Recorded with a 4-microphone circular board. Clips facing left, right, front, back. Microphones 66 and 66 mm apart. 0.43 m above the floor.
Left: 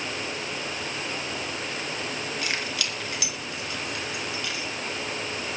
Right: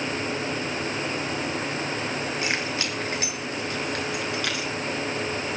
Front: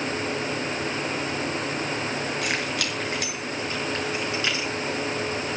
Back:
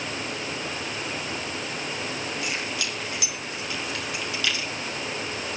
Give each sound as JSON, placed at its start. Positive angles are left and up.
{"t": 2.4, "sound": "keys jangling", "azimuth_deg": -25, "distance_m": 4.5}